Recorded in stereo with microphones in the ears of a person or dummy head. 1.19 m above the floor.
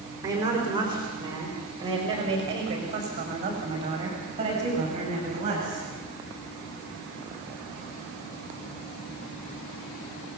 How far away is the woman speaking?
About 4 m.